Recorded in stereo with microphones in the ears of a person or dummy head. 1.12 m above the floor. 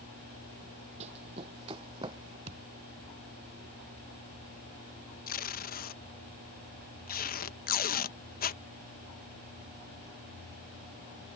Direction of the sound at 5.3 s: 40° left (ahead or behind).